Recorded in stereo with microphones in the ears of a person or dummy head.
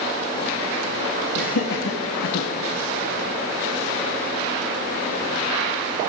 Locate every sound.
1.4 s laughter: 70° left (ahead or behind), 1.9 m; by 2.5 s 75° left (ahead or behind), 1.1 m